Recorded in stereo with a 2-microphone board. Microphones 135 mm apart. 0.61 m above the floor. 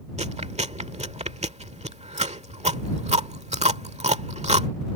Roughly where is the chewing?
Right.